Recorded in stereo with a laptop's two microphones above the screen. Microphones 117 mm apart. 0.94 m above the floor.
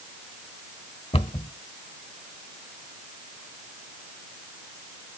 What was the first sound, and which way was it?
A cupboard door, 60° left (ahead or behind).